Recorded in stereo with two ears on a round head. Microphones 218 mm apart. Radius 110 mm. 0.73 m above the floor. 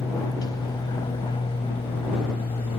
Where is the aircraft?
15° left (ahead or behind); by 2.8 s 25° left (ahead or behind).